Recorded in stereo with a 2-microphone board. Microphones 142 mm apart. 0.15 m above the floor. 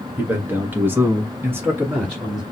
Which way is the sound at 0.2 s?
10° right (ahead or behind).